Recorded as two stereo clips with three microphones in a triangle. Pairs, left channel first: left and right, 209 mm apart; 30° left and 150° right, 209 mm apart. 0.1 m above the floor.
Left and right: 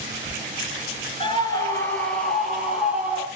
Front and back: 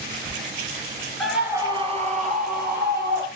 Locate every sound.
1.2 s a scream: 115° left, 1.2 m; by 3.3 s 170° right, 2.5 m